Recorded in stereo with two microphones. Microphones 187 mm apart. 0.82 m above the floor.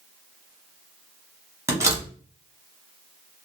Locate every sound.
1.7 s a door slam: 15° right (ahead or behind), 0.8 m